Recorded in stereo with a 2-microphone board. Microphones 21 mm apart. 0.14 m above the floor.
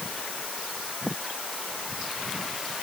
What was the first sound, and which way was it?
Only background noise.